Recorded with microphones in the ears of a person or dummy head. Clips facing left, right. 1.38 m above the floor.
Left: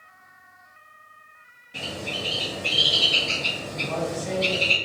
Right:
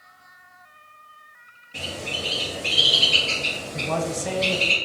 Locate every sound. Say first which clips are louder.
1.7 s a bird: even; 5° left (ahead or behind), 0.7 m
3.7 s a man speaking: right 2 dB; 65° right (ahead or behind), 0.6 m